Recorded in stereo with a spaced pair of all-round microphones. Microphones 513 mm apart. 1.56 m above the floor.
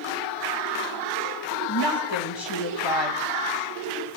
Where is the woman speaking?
55° left (ahead or behind), 2 m.